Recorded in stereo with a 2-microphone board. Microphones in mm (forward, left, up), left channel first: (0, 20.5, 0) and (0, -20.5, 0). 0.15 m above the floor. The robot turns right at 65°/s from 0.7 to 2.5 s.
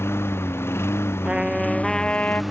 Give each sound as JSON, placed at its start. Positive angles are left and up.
{"t": 0.0, "sound": "a lawn mower", "side_deg": 80}
{"t": 1.2, "sound": "a trumpet", "azimuth_deg": -25}